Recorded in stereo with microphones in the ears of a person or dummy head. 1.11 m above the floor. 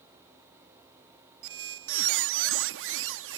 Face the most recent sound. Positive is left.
turn(degrees=-75)  # may be behind; listen again after turning